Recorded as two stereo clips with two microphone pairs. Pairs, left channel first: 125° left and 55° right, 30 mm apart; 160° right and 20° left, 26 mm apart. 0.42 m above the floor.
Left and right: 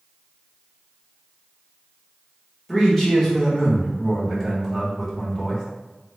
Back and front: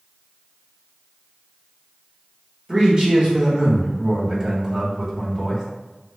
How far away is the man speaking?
About 1.2 m.